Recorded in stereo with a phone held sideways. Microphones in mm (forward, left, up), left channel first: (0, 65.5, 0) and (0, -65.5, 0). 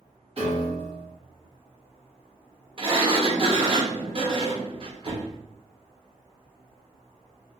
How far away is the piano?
About 1.4 m.